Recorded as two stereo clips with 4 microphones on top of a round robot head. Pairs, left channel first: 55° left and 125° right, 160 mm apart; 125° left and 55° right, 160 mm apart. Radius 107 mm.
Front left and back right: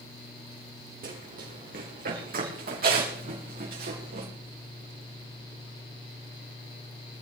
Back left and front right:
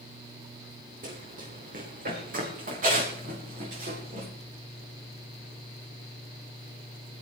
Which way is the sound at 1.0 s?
90° right.